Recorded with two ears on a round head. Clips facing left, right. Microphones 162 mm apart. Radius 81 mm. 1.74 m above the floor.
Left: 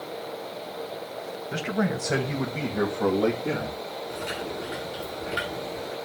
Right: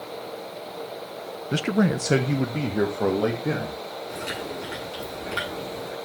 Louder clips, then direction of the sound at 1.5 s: Right 5 dB; 45° right (ahead or behind).